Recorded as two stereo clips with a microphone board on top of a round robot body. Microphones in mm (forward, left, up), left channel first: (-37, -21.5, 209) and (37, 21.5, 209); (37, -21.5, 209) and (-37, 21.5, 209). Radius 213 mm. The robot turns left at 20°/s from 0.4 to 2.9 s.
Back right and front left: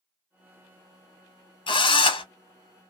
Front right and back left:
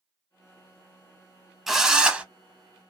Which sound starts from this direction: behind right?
A drill, at 1.7 s.